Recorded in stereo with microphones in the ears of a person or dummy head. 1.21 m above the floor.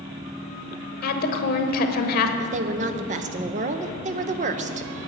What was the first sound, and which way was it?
A woman speaking, 55° left (ahead or behind).